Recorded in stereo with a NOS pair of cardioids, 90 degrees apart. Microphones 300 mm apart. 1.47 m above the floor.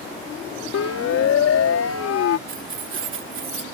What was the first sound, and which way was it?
A siren, 60° left.